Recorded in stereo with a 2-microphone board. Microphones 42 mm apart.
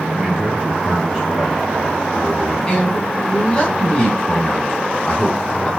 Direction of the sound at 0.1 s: 25° right (ahead or behind).